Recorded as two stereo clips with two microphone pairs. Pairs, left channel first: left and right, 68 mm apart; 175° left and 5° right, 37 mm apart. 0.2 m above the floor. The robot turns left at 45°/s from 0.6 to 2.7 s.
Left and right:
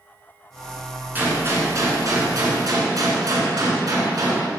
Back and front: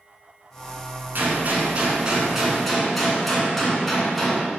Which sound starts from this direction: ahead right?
A gunshot, at 1.1 s.